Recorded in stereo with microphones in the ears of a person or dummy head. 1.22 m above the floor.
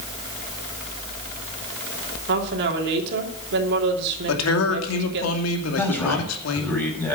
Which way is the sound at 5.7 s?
10° left (ahead or behind).